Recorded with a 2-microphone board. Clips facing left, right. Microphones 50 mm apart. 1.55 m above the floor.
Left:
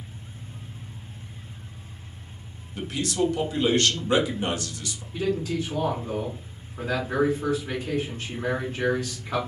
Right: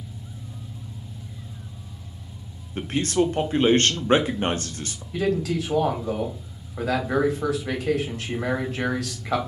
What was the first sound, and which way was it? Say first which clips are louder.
An engine running: right 3 dB; 50° right (ahead or behind).